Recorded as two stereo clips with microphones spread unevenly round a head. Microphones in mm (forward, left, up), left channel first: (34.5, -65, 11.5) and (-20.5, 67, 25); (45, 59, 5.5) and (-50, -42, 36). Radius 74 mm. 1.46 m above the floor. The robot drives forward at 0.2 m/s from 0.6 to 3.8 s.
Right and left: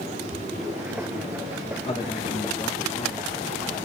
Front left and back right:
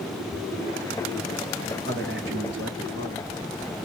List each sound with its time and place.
1.9 s a man speaking: 120° right, 2 m; by 3.3 s 125° right, 2 m